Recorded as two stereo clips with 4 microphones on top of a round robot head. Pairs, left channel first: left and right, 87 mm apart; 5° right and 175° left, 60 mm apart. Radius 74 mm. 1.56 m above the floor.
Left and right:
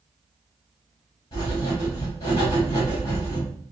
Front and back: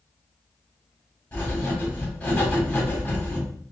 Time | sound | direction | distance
1.3 | writing | 45° left | 2 m